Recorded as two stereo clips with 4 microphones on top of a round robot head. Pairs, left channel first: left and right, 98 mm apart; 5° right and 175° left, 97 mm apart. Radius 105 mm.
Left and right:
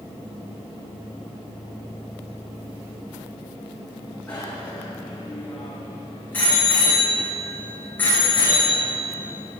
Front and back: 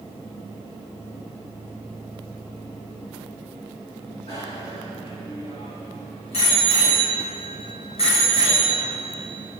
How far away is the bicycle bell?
About 9 m.